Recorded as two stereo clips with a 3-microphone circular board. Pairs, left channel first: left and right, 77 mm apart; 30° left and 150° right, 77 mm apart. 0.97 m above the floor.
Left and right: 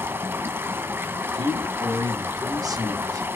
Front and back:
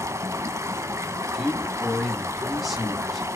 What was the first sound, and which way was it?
Running water, 130° right.